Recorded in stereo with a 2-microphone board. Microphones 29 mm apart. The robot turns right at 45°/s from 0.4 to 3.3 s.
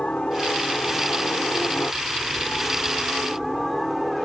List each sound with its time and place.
0.0 s a helicopter: 40° left; by 4.2 s 170° left